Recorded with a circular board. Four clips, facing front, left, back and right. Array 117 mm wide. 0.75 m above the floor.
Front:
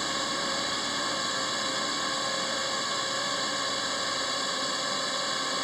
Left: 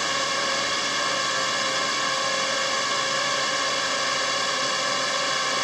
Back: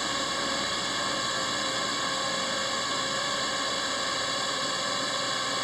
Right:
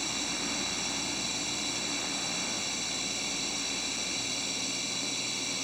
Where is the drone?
90° left.